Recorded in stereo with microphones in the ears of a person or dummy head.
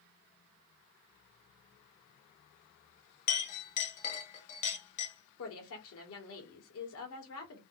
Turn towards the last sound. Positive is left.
turn(degrees=85)